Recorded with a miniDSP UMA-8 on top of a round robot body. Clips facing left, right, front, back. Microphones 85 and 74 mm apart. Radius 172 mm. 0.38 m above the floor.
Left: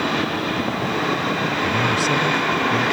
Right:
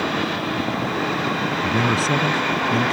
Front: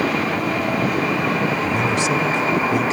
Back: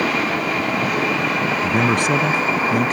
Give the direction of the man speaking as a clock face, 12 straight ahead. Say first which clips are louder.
Right 1 dB, back 2 dB; 5 o'clock.